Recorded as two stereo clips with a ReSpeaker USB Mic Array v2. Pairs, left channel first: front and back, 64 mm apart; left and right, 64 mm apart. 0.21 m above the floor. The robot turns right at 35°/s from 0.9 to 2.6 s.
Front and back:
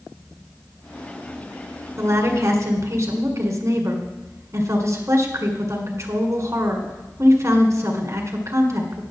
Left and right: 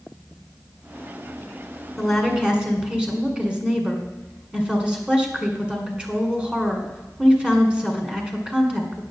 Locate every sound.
2.0 s a woman speaking: 175° left, 2.0 m; by 9.0 s 160° right, 2.0 m